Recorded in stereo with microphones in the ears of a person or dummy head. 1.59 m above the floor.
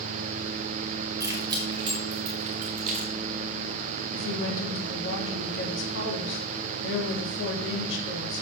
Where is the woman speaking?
75° left (ahead or behind), 3 m.